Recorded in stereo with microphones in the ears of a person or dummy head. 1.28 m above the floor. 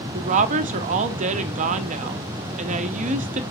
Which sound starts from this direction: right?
A woman speaking, at 0.1 s.